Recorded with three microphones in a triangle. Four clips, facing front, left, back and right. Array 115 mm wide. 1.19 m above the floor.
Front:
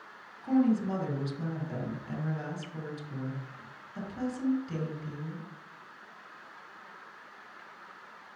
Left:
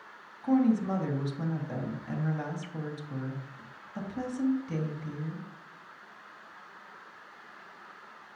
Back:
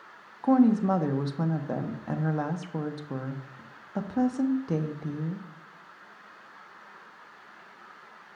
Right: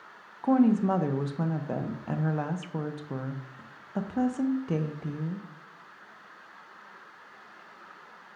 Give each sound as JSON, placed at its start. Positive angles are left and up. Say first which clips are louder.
{"t": 0.4, "sound": "a woman speaking", "louder": "right 3 dB, back 5 dB", "azimuth_deg": -140, "distance_m": 0.7}